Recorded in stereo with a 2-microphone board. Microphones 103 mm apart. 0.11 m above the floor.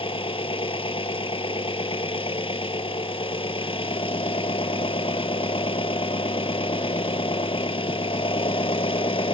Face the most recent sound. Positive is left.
turn(degrees=65)  # may be behind; listen again after turning